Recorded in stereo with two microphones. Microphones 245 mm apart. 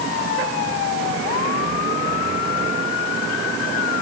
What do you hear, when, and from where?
Only background noise.